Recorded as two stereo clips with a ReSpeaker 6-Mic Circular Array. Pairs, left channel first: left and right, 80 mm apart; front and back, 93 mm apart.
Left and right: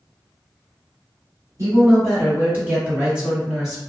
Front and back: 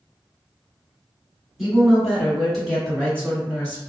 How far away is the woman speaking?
About 2.0 m.